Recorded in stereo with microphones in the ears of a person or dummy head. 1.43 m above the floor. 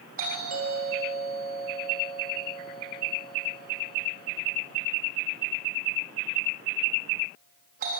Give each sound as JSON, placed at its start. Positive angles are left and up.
{"t": 0.2, "sound": "a doorbell", "side_deg": -45, "distance_m": 4.0}